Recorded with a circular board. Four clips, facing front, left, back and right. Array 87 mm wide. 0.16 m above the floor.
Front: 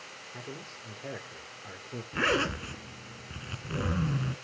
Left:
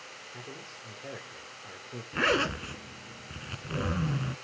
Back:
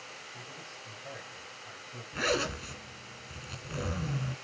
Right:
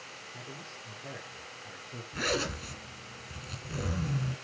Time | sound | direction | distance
0.3 | a man speaking | 25° left | 9 m
2.1 | a zipper | 55° left | 2 m